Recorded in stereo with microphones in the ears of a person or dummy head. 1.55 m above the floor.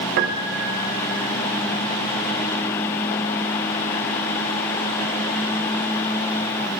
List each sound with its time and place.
0.2 s a piano: 55° right (ahead or behind), 1.7 m